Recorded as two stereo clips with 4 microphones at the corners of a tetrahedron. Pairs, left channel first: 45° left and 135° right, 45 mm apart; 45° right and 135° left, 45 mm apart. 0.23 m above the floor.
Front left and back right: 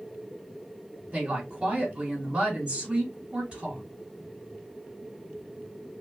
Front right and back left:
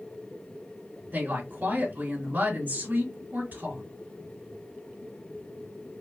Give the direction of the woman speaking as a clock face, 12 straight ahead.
7 o'clock.